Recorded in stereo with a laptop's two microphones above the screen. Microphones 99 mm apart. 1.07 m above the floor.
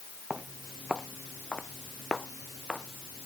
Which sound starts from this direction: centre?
Footsteps, at 0.3 s.